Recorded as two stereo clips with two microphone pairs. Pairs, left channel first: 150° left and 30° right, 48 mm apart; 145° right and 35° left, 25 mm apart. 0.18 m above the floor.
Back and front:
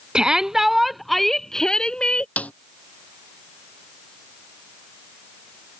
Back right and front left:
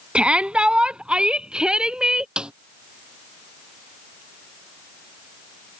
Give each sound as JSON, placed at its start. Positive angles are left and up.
{"t": 0.1, "sound": "a shout", "azimuth_deg": 35}
{"t": 2.4, "sound": "a snare drum", "azimuth_deg": 90}